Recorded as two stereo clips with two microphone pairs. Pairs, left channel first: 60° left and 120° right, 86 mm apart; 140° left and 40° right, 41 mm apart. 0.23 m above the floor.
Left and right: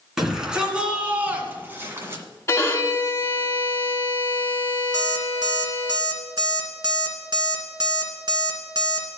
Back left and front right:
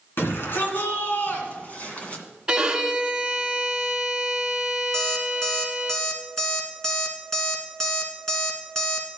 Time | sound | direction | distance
0.2 | a shout | 155° left | 2.5 m
2.5 | a violin | 30° left | 1.2 m
4.9 | an alarm clock | 140° right | 1.8 m